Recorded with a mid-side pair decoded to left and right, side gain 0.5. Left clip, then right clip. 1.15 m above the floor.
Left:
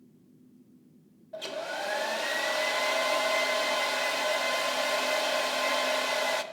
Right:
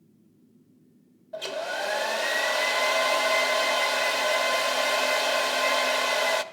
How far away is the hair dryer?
About 1.0 m.